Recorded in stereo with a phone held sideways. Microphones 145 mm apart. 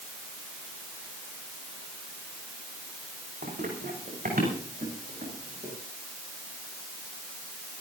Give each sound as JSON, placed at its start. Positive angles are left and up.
{"t": 3.4, "sound": "running footsteps", "side_deg": -80, "distance_m": 6.5}